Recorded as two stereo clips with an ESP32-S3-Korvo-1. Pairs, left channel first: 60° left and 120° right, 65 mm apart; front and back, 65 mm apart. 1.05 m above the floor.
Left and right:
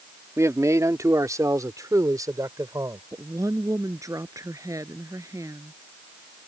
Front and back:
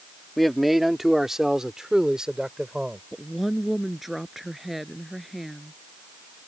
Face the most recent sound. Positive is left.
turn(degrees=-90)